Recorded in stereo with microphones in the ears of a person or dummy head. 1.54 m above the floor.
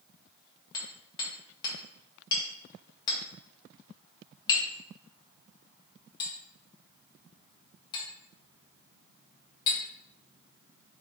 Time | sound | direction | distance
0.7 | hammering | 25° left (ahead or behind) | 1.3 m